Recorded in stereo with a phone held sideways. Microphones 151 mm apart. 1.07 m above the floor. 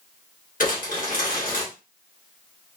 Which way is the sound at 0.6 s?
60° left (ahead or behind).